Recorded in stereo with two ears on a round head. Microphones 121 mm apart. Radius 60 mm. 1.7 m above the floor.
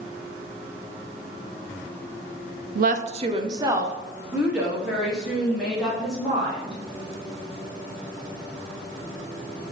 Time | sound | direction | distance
2.8 | a woman speaking | 70° right (ahead or behind) | 0.6 m